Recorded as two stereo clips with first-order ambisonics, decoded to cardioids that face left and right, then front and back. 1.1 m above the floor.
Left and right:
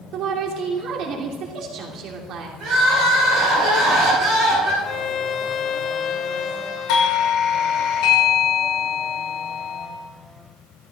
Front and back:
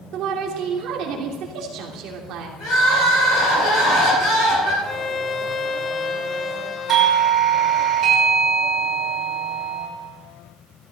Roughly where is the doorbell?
Behind left.